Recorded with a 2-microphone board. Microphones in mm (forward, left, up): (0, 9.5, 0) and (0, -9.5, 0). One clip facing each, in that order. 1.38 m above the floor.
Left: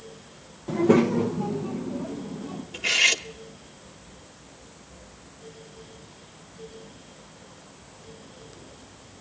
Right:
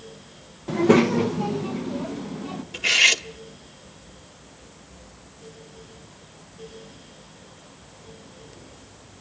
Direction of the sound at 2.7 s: 10° right (ahead or behind).